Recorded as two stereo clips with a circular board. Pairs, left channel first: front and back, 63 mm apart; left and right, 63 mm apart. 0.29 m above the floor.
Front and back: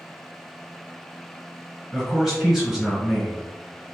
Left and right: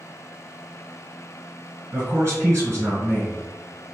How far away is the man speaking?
About 1.9 m.